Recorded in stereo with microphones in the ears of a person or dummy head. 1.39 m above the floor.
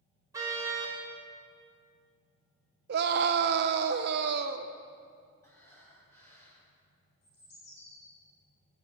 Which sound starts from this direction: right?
A scream, at 2.9 s.